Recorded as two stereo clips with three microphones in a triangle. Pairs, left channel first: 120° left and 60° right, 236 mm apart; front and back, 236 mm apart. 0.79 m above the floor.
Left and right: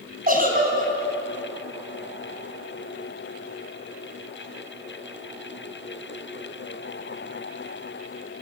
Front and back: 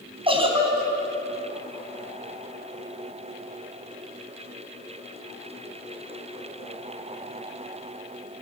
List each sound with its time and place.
0.3 s a giggle: 110° right, 4 m